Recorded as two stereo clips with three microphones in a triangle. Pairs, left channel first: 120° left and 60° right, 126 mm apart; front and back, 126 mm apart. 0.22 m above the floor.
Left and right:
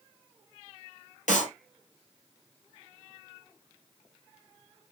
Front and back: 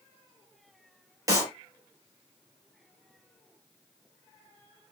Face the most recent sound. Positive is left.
turn(degrees=115)